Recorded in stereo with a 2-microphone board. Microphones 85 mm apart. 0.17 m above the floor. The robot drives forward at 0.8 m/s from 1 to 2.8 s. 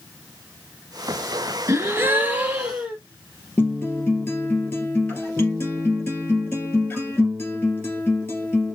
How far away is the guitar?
About 2.5 m.